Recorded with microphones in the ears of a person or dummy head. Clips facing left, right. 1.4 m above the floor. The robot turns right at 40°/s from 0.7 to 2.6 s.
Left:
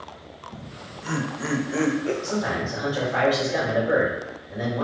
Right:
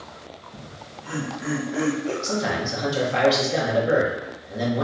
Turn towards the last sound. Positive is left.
turn(degrees=-35)  # may be behind; listen again after turning